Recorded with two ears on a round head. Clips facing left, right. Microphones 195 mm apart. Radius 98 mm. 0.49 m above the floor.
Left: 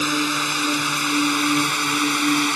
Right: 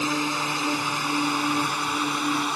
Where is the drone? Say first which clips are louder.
Left 3 dB; 20° left (ahead or behind); by 2.5 s 30° left (ahead or behind).